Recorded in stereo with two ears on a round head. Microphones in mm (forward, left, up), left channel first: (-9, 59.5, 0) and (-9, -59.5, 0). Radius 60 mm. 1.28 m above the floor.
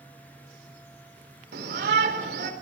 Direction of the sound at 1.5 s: 90° right.